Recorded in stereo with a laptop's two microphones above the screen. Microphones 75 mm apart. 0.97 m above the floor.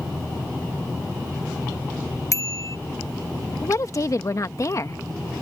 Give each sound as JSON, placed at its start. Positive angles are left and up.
{"t": 2.3, "sound": "a bicycle bell", "side_deg": 45}
{"t": 3.6, "sound": "a woman speaking", "side_deg": 45}